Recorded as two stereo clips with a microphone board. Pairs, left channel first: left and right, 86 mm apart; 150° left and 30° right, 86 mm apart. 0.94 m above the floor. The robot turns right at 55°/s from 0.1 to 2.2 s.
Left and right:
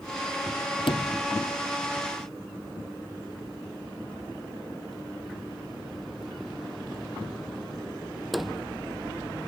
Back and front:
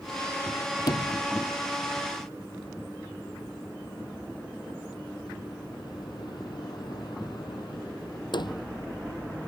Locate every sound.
0.9 s a sliding door: 110° left; by 8.8 s straight behind